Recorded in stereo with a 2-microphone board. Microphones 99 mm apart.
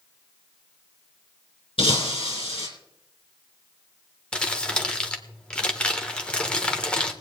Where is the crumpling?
10° left (ahead or behind), 1.2 m.